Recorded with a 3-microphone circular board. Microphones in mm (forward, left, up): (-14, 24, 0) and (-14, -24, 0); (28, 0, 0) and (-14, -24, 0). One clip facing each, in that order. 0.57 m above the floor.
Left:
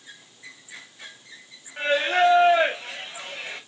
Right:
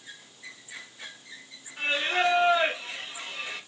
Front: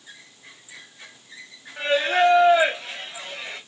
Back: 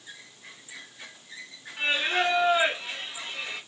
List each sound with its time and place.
1.8 s singing: 60° left, 1.6 m